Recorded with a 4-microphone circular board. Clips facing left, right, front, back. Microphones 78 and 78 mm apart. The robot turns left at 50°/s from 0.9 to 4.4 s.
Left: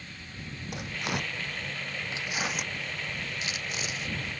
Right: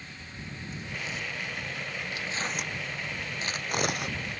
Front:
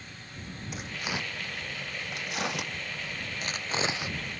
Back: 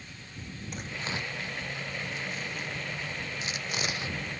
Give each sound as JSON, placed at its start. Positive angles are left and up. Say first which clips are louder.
{"t": 0.7, "sound": "tearing paper", "louder": "left 5 dB, front 1 dB", "azimuth_deg": 85}